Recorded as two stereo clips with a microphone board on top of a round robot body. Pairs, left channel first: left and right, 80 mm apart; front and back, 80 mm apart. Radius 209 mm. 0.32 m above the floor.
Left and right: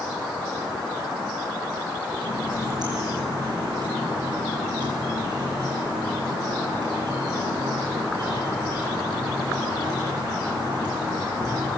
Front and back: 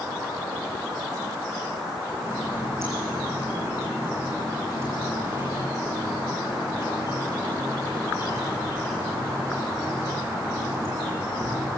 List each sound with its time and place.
2.2 s a running tap: 125° right, 7.5 m